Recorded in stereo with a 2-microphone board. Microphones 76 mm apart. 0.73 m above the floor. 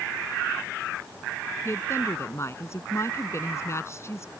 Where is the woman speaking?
35° left (ahead or behind).